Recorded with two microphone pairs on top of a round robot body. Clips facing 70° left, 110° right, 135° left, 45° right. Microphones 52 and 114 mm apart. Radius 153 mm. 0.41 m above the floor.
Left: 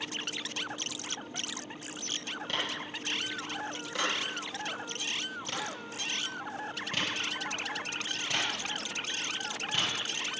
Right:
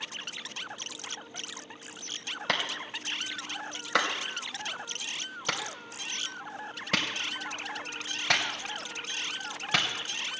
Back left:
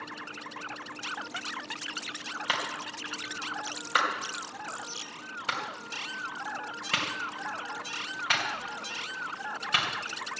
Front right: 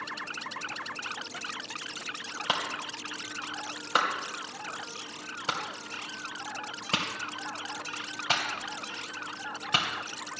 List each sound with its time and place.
2.5 s a clap: 105° right, 2.5 m